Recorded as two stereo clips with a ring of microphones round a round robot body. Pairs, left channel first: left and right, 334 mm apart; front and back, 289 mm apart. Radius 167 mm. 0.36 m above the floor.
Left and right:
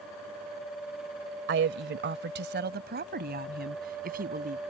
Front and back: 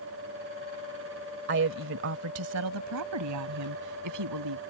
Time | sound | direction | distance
1.5 | a woman speaking | 135° right | ?